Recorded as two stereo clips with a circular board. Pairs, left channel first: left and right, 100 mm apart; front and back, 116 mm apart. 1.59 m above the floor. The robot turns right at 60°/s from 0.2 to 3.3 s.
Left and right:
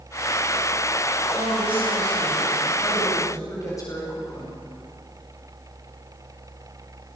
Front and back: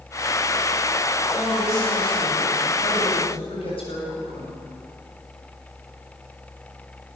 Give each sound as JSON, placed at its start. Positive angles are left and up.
{"t": 1.4, "sound": "a woman speaking", "azimuth_deg": -80, "distance_m": 8.5}